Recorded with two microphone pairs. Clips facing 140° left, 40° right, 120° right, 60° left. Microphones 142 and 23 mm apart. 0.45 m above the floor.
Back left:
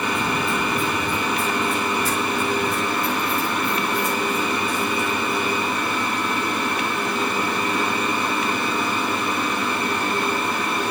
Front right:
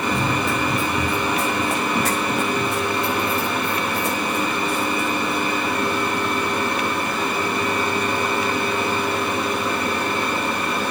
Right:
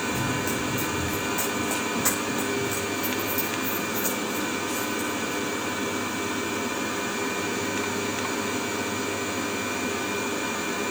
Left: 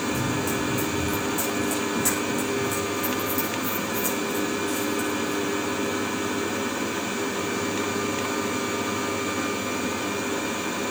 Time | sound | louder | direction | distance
0.1 | running footsteps | front right 2 dB, left 1 dB | 55° right | 5 m